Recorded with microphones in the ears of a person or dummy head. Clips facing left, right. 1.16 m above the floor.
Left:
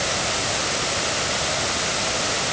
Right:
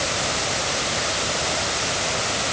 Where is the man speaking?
I don't hear a man speaking.